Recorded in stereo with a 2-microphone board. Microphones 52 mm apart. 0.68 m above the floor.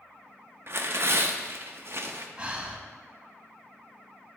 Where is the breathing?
20° right (ahead or behind), 0.8 m.